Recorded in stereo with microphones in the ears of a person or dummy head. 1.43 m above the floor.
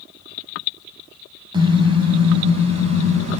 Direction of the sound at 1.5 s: 20° right (ahead or behind).